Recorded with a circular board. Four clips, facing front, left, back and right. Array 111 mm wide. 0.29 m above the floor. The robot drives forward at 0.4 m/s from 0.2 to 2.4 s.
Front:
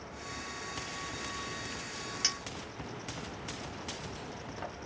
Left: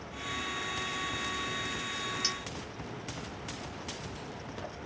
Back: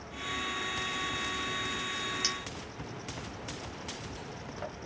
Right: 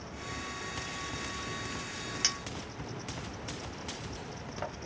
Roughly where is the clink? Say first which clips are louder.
Left 1 dB, back 2 dB; right.